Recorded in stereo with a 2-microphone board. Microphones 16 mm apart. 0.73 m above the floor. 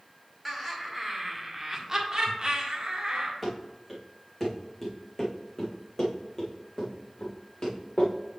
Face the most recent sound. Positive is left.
turn(degrees=50)  # may be behind; listen again after turning